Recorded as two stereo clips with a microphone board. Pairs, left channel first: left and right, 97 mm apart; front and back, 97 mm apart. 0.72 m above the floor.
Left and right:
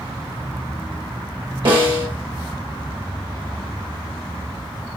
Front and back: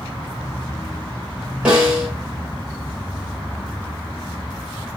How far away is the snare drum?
About 1.4 m.